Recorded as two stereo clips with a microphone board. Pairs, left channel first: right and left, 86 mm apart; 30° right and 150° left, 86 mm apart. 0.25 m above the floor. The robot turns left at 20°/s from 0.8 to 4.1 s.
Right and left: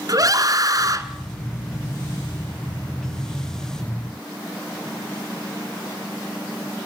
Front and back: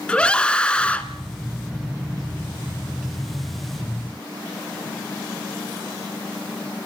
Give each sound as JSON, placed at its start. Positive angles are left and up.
{"t": 0.1, "sound": "a scream", "azimuth_deg": 50, "distance_m": 2.5}